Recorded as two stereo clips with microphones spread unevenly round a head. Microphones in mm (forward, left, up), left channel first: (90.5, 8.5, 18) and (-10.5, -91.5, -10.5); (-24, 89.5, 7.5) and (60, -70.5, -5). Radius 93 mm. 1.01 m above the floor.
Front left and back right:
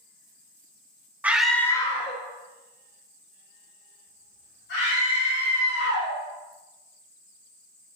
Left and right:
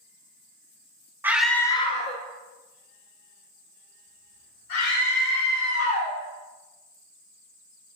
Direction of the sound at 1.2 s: 115° right.